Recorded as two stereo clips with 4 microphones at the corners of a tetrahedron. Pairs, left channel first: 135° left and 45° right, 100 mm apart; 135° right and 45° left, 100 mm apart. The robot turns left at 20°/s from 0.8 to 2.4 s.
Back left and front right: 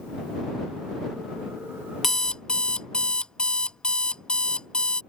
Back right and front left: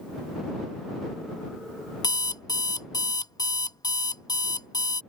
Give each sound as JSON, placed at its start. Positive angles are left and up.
{"t": 2.0, "sound": "an alarm clock", "azimuth_deg": -140}